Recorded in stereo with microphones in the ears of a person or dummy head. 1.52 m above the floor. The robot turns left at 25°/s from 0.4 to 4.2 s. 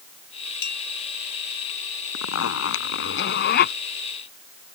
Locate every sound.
0.6 s a clink: 55° left (ahead or behind); by 0.9 s 50° left (ahead or behind)
2.1 s a zipper: 90° left; by 3.8 s 50° left